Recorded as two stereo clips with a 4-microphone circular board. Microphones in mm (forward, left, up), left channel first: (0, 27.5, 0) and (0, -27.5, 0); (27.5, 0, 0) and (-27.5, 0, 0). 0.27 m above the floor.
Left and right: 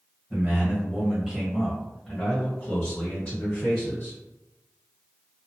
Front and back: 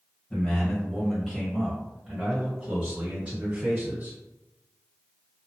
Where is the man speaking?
60° right, 1.6 m; by 4.2 s 140° left, 2 m.